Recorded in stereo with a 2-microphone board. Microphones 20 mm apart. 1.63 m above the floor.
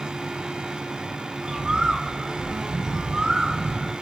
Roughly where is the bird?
Right.